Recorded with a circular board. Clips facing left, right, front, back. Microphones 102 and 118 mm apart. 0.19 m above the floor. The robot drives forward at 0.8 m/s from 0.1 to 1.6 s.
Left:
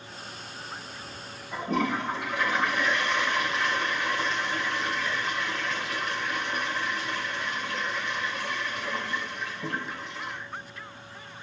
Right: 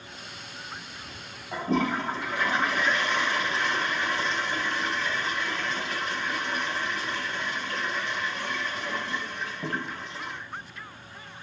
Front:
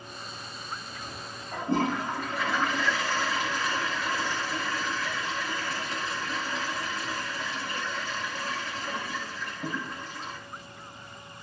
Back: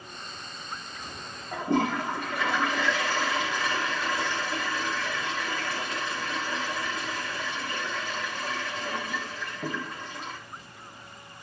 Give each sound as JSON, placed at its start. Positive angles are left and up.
{"t": 1.5, "sound": "a toilet flushing", "azimuth_deg": -155, "distance_m": 9.5}